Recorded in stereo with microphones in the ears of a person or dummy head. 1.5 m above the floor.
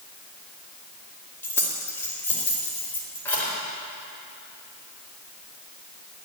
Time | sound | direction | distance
1.4 | keys jangling | 15° left (ahead or behind) | 2 m